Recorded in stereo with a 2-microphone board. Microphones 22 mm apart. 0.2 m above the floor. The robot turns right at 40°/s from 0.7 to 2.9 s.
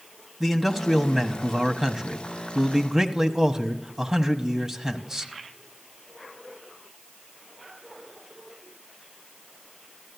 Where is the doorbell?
I don't hear a doorbell.